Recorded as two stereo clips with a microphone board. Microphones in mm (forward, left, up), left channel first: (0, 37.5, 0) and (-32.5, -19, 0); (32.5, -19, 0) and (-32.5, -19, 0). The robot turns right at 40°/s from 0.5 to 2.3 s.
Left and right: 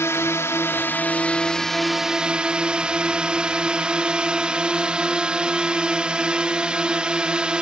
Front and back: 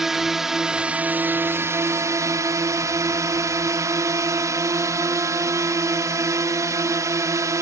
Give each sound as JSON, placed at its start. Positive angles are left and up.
{"t": 0.0, "sound": "a drone", "azimuth_deg": 95}